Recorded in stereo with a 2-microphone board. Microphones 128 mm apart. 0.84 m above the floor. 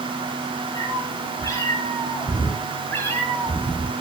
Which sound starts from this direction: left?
A cat meowing, at 0.8 s.